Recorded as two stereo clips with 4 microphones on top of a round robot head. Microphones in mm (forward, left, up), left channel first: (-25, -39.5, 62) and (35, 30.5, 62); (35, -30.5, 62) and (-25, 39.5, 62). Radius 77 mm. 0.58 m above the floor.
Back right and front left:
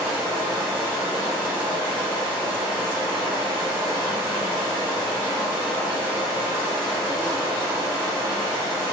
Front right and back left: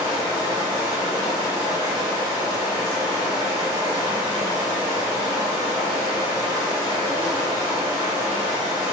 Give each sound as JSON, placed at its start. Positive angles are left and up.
{"t": 0.0, "sound": "running water", "azimuth_deg": 155, "distance_m": 1.9}